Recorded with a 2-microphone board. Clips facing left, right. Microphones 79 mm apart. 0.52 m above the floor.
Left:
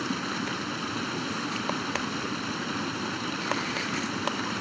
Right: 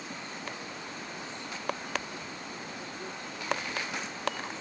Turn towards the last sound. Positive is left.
turn(degrees=80)